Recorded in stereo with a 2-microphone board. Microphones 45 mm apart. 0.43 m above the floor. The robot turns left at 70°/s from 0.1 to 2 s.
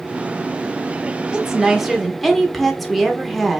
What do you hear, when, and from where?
1.3 s a woman speaking: 15° right (ahead or behind), 0.7 m; by 3.6 s centre (ahead or behind), 0.7 m